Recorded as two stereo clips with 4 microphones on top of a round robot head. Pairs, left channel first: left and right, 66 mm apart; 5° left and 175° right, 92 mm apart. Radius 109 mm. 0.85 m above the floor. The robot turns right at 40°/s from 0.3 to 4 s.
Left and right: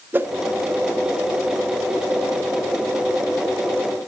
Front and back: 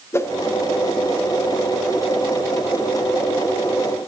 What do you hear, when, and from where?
0.1 s a whoosh: 45° right, 1.1 m